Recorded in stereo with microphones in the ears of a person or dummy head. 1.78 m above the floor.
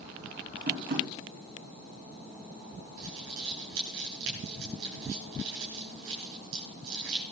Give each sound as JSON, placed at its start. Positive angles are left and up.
{"t": 0.7, "sound": "tapping", "side_deg": -55, "distance_m": 3.5}
{"t": 3.0, "sound": "crumpling", "side_deg": -75, "distance_m": 9.5}